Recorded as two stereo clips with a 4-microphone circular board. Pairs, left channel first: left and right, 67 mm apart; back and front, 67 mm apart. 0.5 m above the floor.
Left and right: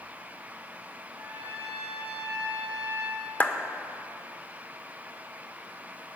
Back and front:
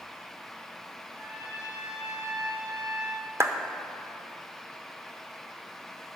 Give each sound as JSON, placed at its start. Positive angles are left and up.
{"t": 1.1, "sound": "a trumpet", "azimuth_deg": -65, "distance_m": 4.5}
{"t": 3.4, "sound": "a clap", "azimuth_deg": 30, "distance_m": 0.8}